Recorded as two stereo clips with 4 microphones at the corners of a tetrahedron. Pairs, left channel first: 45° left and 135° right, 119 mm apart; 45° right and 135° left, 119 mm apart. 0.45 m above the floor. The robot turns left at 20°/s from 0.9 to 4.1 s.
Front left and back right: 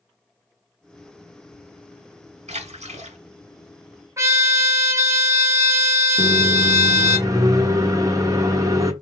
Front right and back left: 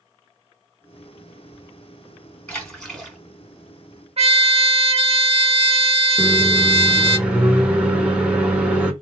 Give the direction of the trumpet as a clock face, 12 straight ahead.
7 o'clock.